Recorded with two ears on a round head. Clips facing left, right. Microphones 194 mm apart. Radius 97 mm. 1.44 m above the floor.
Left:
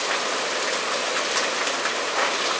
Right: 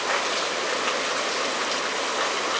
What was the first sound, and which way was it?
Only background noise.